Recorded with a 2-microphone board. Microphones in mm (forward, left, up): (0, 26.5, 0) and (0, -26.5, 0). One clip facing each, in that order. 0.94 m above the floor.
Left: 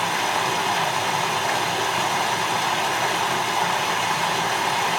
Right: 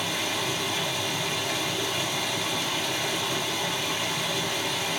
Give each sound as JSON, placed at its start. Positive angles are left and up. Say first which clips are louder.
{"t": 0.0, "sound": "running water", "louder": "left 7 dB", "side_deg": 70, "distance_m": 1.8}